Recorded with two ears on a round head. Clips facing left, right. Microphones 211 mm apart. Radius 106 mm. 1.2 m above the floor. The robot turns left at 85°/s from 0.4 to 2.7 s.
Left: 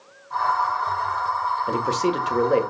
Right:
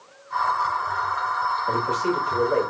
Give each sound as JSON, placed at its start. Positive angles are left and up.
{"t": 1.7, "sound": "a man speaking", "azimuth_deg": 145, "distance_m": 2.0}